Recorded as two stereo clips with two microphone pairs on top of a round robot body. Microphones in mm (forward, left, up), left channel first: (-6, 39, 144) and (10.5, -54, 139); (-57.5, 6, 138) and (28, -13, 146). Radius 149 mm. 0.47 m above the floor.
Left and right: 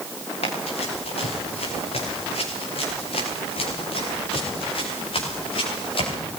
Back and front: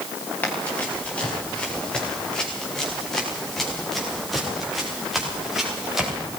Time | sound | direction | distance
0.4 | running footsteps | 95° left | 9 m